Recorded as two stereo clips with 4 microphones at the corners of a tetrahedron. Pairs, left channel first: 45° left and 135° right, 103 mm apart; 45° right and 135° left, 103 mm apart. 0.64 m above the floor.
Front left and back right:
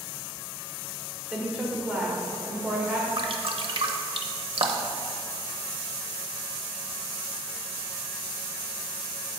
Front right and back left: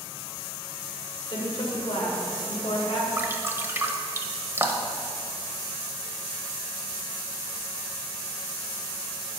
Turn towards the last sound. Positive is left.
turn(degrees=-160)